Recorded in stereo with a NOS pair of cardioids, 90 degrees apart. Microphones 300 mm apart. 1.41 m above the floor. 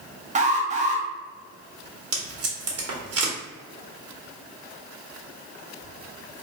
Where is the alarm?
25° right, 1.1 m.